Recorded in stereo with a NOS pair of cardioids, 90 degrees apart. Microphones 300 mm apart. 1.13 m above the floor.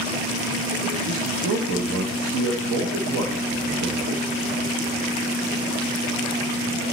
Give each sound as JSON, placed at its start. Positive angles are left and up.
{"t": 1.1, "sound": "a man speaking", "azimuth_deg": -50, "distance_m": 1.1}